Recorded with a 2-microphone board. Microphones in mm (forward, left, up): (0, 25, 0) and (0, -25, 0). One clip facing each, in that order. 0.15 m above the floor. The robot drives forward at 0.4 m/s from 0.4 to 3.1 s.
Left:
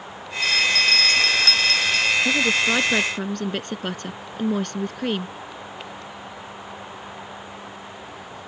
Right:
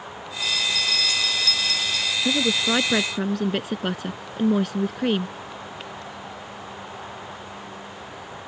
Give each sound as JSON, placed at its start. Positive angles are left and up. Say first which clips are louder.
{"t": 0.4, "sound": "a bell", "louder": "left 6 dB", "side_deg": 55}
{"t": 2.2, "sound": "a woman speaking", "louder": "left 2 dB", "side_deg": -5}